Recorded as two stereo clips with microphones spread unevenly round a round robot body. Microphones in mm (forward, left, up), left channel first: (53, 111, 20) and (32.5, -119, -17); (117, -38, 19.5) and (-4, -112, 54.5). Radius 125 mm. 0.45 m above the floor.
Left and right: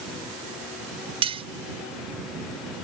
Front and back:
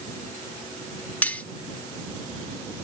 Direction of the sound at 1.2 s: 35° right.